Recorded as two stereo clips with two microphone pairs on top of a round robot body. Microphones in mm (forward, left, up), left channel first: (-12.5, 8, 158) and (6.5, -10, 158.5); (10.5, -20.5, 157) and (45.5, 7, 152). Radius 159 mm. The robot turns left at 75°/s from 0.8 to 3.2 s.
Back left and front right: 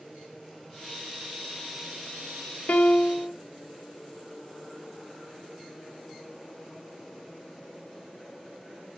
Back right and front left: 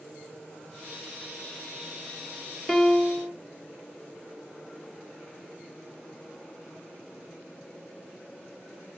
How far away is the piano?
About 0.7 m.